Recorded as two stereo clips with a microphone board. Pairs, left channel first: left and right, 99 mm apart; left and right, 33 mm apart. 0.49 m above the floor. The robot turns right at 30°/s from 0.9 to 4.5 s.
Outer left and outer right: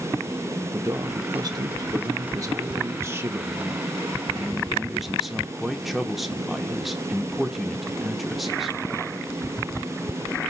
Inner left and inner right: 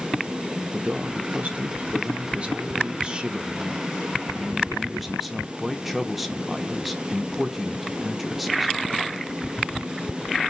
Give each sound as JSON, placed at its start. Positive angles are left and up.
{"t": 0.7, "sound": "a man speaking", "azimuth_deg": -110, "distance_m": 0.8}